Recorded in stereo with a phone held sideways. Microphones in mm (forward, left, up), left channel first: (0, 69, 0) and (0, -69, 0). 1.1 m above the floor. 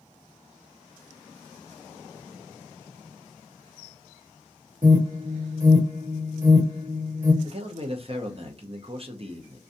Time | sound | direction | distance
4.8 | an alarm | 65° right (ahead or behind) | 1.1 m
7.4 | a man speaking | 45° right (ahead or behind) | 0.6 m